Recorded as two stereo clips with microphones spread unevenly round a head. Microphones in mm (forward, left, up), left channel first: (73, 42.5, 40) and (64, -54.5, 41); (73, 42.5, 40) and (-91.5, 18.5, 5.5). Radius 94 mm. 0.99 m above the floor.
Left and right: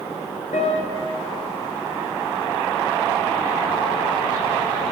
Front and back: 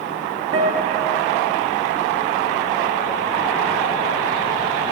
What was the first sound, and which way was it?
A guitar, 125° left.